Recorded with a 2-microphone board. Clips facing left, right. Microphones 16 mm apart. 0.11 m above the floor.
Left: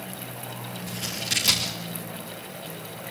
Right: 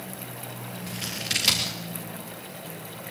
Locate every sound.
0.9 s scissors: 20° right (ahead or behind), 4 m